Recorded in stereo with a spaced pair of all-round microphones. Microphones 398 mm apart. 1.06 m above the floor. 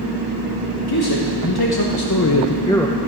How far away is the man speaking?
About 1.5 m.